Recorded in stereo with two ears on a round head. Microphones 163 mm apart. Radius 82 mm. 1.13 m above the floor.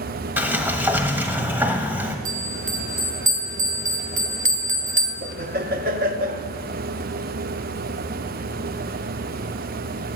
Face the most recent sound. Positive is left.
turn(degrees=-50)  # may be behind; listen again after turning